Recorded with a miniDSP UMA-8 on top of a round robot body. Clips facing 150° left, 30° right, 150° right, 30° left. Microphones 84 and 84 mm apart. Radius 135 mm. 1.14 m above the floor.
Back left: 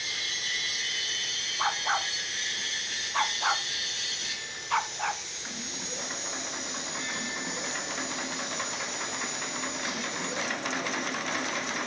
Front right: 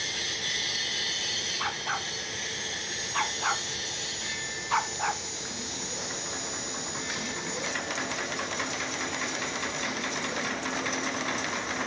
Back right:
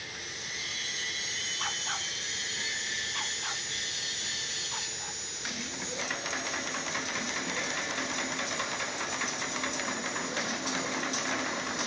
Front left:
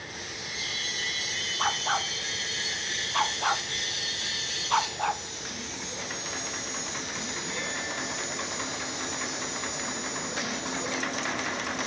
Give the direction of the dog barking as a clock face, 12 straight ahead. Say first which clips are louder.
Back left 5 dB, front left 10 dB; 9 o'clock.